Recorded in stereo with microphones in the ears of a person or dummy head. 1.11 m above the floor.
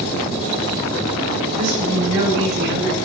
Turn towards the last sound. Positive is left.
turn(degrees=-80)